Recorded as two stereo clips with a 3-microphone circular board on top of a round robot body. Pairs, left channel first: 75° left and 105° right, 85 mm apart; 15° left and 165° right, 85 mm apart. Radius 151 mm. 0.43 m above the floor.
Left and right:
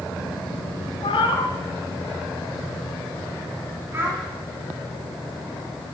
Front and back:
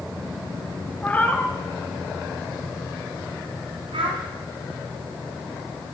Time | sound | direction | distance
1.0 | a cat meowing | 85° left | 1.5 m
3.9 | a child speaking | 170° right | 3 m